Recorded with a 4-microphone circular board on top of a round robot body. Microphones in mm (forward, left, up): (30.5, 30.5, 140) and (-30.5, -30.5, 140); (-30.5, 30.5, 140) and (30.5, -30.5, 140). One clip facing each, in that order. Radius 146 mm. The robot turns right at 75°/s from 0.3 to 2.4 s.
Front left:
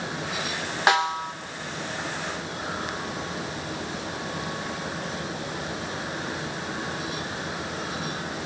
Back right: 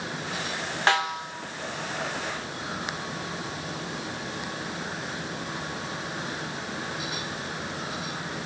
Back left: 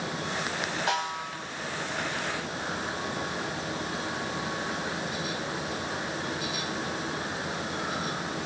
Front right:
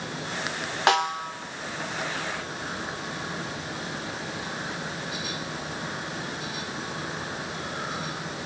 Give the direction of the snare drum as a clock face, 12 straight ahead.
1 o'clock.